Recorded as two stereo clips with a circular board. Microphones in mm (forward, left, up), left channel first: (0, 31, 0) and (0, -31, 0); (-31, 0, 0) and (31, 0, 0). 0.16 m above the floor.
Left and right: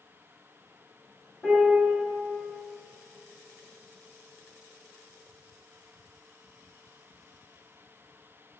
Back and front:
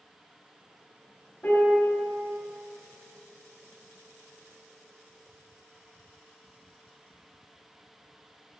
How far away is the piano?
About 2 m.